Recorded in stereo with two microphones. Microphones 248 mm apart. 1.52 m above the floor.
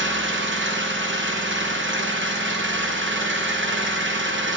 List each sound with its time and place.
0.0 s an engine running: 50° right (ahead or behind), 0.9 m